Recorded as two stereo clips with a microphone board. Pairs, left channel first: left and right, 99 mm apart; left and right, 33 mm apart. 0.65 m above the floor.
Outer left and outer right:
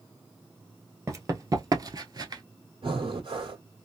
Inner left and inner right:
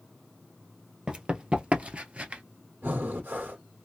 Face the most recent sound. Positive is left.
turn(degrees=-70)  # may be behind; listen again after turning